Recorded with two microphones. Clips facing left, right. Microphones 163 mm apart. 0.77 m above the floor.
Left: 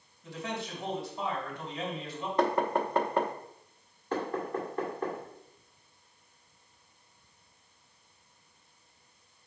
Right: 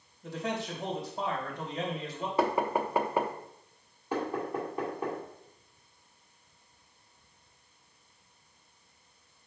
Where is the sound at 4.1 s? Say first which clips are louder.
Even; 10° right (ahead or behind), 1.7 m.